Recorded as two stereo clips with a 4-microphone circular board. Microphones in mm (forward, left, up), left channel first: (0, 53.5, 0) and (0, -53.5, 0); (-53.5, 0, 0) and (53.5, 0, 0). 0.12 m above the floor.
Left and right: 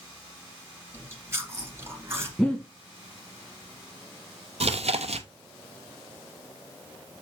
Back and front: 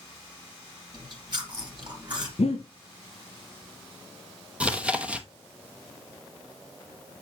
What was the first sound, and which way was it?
Chewing, 30° right.